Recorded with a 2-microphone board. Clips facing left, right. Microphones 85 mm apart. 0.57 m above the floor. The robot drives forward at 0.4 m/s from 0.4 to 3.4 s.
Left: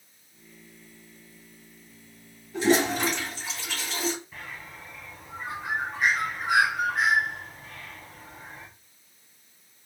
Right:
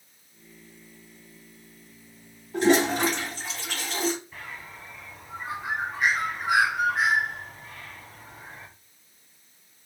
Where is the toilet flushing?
55° right (ahead or behind), 1.8 m; by 4.1 s 50° right (ahead or behind), 1.9 m.